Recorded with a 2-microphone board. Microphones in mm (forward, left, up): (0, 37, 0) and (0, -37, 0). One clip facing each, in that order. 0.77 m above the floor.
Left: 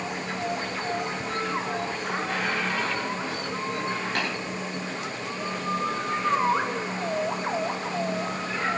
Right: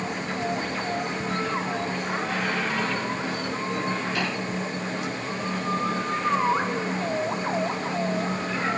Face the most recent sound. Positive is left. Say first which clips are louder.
# even
turn(degrees=60)  # may be behind; listen again after turning